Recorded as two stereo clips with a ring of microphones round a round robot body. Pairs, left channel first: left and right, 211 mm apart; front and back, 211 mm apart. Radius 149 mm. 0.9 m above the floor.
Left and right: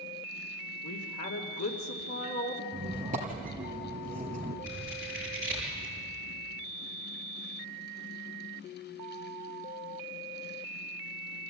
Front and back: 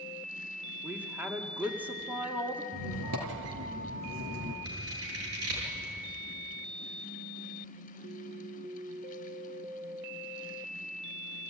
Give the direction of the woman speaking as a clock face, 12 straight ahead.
9 o'clock.